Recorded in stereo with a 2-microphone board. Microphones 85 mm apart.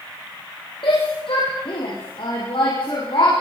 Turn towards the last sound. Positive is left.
turn(degrees=70)  # may be behind; listen again after turning